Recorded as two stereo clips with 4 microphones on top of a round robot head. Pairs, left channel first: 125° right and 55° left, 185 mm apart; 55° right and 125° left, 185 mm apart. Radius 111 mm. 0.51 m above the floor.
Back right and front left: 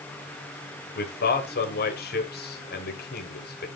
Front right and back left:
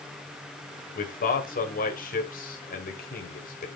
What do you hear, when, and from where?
0.9 s a man speaking: 95° right, 2 m